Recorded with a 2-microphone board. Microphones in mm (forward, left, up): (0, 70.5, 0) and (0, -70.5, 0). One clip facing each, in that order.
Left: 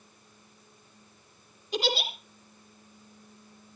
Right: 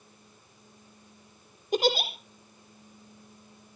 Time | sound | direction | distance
1.7 | a giggle | 50° right (ahead or behind) | 3.5 m